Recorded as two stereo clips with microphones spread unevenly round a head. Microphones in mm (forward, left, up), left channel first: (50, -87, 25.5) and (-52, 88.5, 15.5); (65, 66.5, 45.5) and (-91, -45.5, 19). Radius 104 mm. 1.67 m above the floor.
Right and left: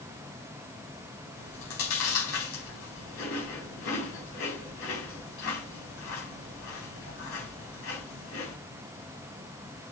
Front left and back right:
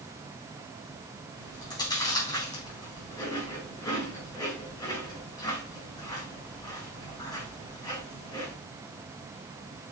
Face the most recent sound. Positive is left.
turn(degrees=-35)